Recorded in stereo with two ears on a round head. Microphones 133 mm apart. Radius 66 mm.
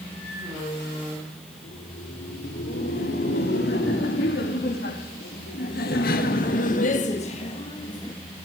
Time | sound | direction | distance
1.5 | laughter | 75° left (ahead or behind) | 4.5 m